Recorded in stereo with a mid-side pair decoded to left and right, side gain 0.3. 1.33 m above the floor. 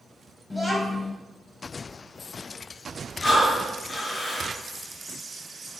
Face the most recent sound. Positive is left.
turn(degrees=50)